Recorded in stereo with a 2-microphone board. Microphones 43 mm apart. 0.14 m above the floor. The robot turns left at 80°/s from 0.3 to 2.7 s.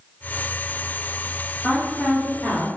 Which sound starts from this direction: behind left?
A woman speaking, at 1.6 s.